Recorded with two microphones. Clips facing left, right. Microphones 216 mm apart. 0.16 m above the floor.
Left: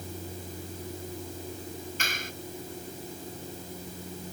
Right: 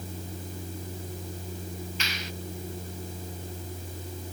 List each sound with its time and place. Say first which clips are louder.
2.0 s a clap: even; 50° left (ahead or behind)